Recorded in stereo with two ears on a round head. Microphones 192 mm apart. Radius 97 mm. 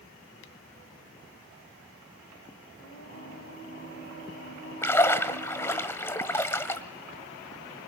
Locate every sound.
2.8 s singing: 55° left (ahead or behind), 4 m
4.8 s a splash: 15° left (ahead or behind), 1.4 m